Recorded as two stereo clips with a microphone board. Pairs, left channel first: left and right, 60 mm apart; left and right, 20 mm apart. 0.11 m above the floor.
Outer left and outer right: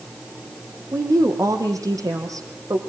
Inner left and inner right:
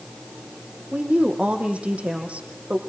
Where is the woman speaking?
70° right (ahead or behind), 5.5 m.